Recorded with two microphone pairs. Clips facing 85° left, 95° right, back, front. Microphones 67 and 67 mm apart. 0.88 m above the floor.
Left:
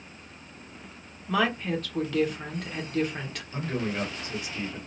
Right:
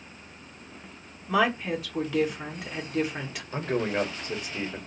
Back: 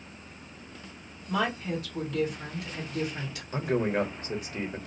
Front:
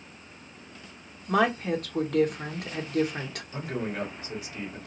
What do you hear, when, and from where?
1.3 s a woman speaking: 15° right, 0.8 m
3.5 s a man speaking: 140° right, 1.0 m